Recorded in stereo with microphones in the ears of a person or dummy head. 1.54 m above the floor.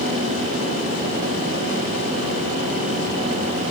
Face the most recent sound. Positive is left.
No sound to turn to.